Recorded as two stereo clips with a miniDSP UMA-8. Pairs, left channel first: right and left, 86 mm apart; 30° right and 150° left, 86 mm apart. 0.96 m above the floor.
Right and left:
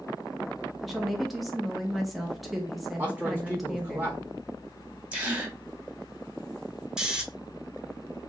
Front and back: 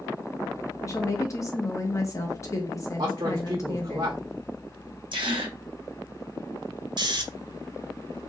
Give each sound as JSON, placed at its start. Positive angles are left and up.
{"t": 0.8, "sound": "a woman speaking", "azimuth_deg": 0, "distance_m": 0.6}
{"t": 3.0, "sound": "a man speaking", "azimuth_deg": 160, "distance_m": 0.7}
{"t": 5.1, "sound": "a gasp", "azimuth_deg": 160, "distance_m": 1.0}
{"t": 7.0, "sound": "snoring", "azimuth_deg": 170, "distance_m": 0.6}